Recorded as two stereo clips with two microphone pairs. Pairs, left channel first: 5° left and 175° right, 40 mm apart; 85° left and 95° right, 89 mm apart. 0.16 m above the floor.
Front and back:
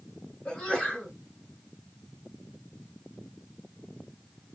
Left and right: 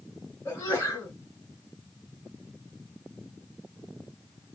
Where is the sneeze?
45° left, 1.9 m.